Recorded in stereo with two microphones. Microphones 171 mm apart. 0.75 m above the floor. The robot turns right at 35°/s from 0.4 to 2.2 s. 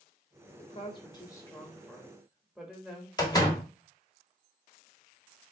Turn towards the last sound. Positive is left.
turn(degrees=25)  # may be behind; listen again after turning